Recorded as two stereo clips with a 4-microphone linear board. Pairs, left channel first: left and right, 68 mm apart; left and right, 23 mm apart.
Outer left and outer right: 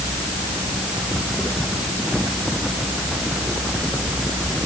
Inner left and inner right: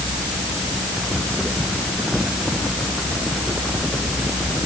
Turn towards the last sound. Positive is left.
No sound to turn to.